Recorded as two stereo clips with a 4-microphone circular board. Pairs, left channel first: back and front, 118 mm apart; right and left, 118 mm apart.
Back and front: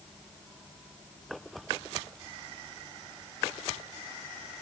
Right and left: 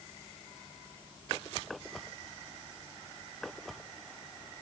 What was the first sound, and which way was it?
Only background noise.